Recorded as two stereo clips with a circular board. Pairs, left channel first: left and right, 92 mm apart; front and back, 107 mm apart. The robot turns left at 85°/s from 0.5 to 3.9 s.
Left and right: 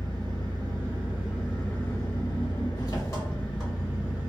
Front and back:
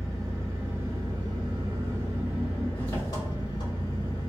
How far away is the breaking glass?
I don't hear breaking glass.